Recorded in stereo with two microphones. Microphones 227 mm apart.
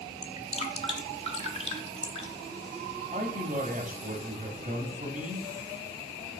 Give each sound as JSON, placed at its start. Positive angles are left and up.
{"t": 0.2, "sound": "dripping", "side_deg": 25, "distance_m": 1.0}
{"t": 3.1, "sound": "a man speaking", "side_deg": -35, "distance_m": 1.1}